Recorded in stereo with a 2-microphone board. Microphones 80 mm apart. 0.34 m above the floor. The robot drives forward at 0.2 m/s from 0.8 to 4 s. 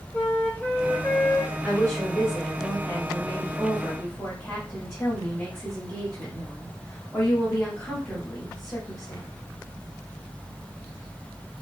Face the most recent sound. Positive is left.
turn(degrees=25)  # may be behind; listen again after turning